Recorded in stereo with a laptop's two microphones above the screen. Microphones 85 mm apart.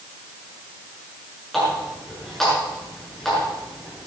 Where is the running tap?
5° left (ahead or behind), 7.5 m.